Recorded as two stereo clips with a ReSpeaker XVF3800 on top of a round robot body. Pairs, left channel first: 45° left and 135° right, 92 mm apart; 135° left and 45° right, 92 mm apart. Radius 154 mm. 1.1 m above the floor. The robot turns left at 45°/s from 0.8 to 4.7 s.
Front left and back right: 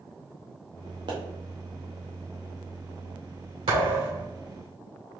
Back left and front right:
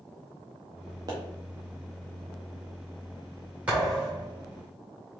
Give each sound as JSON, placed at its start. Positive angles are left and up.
{"t": 1.1, "sound": "a pop", "azimuth_deg": -95, "distance_m": 0.7}
{"t": 3.7, "sound": "a thud", "azimuth_deg": -120, "distance_m": 2.0}